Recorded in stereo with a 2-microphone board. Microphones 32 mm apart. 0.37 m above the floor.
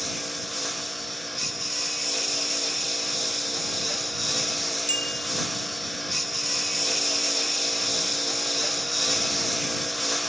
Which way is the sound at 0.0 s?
Centre (ahead or behind).